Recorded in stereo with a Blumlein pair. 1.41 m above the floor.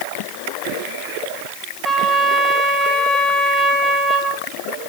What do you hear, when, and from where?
1.8 s a trumpet: straight ahead, 2.5 m